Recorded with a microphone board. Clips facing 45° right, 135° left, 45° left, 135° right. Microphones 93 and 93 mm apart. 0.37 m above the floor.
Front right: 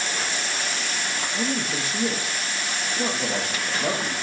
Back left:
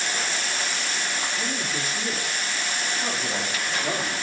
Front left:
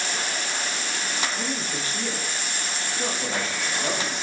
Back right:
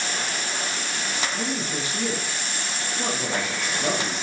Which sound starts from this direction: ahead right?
A man speaking, at 1.3 s.